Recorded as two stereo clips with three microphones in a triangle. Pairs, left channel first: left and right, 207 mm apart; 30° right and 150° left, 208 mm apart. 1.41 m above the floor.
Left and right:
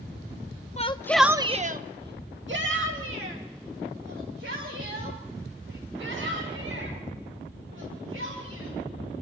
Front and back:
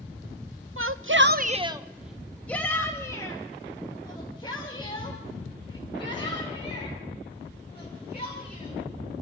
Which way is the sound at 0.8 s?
145° left.